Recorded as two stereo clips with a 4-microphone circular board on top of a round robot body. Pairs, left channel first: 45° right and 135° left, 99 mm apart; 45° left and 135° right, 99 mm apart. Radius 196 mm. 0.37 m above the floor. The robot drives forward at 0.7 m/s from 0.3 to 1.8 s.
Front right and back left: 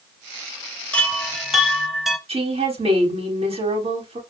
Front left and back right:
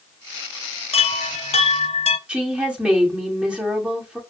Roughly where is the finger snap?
I don't hear a finger snap.